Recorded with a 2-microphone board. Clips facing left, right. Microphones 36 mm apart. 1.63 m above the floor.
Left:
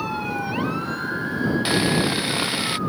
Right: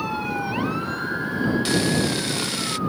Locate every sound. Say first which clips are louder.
1.6 s sawing: left 1 dB; 20° left (ahead or behind)